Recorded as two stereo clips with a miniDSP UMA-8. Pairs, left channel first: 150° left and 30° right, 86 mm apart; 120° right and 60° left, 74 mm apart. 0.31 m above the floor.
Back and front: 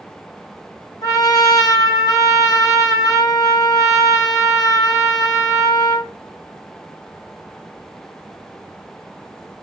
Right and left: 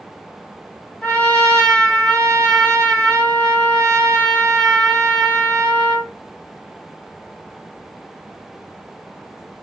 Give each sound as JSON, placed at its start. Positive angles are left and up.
{"t": 1.0, "sound": "a trumpet", "azimuth_deg": 170, "distance_m": 1.9}